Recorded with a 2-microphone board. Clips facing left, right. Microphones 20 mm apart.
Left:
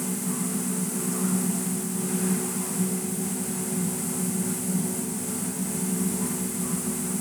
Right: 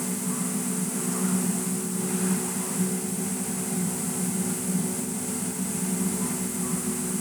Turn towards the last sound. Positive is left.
No sound to turn to.